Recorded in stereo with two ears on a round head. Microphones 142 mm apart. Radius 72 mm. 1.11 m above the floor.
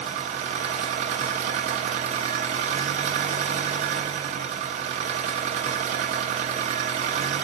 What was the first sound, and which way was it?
An engine running, 45° right (ahead or behind).